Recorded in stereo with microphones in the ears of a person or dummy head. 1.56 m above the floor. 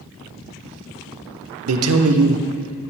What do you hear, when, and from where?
1.7 s a man speaking: 85° right, 0.8 m